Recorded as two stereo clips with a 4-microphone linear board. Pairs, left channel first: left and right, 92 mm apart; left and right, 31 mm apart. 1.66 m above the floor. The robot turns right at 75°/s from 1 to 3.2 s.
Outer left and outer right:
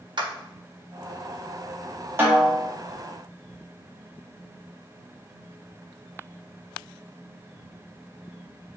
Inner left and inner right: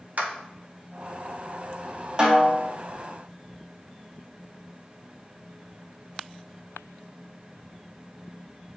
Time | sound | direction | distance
0.2 | a clap | 55° right (ahead or behind) | 1.3 m
2.2 | a snare drum | 30° right | 1.8 m